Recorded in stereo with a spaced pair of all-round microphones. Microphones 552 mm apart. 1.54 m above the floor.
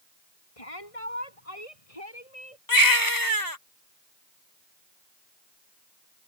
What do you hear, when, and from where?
0.6 s a shout: 80° left
2.7 s a baby crying: 35° left (ahead or behind)